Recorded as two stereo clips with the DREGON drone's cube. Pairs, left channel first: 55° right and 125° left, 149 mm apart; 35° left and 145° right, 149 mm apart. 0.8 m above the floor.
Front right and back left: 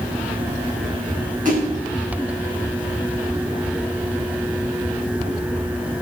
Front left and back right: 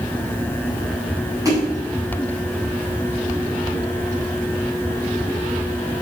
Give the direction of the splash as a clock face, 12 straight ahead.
7 o'clock.